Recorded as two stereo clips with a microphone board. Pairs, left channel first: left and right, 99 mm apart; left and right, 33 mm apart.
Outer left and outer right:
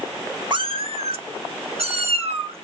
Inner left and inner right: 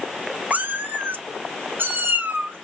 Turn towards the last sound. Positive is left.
turn(degrees=-65)  # may be behind; listen again after turning